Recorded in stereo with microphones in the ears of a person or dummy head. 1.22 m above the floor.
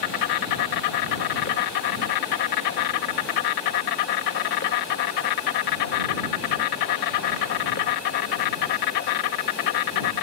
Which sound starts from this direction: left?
An insect, at 0.0 s.